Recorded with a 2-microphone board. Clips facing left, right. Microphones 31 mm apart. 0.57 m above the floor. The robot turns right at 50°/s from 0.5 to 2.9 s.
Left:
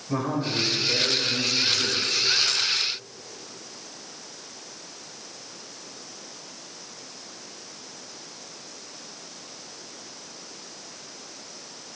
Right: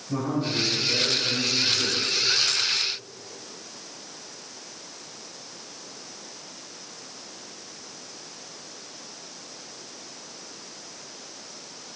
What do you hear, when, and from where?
0.1 s a man speaking: 135° left, 2 m; by 2.3 s 135° right, 2 m